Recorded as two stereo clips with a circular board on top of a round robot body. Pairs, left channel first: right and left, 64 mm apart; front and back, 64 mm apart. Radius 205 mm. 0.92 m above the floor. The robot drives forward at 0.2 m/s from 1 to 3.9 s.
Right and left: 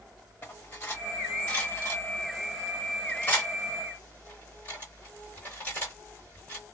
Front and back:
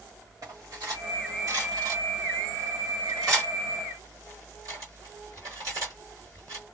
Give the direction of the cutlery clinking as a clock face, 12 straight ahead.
5 o'clock.